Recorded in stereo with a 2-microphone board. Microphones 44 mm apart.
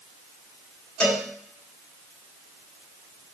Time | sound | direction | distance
1.0 | a cowbell | 20° left (ahead or behind) | 1.3 m